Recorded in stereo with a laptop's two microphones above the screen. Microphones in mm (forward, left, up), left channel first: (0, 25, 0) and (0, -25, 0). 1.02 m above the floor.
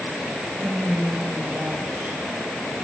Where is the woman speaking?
55° right (ahead or behind), 4.5 m.